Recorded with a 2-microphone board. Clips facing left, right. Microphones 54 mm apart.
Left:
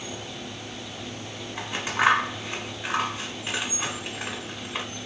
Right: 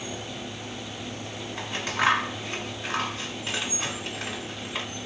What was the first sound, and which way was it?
Scissors, 15° left (ahead or behind).